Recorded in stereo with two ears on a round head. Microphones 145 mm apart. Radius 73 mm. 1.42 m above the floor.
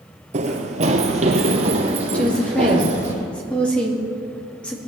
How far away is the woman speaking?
About 2.5 m.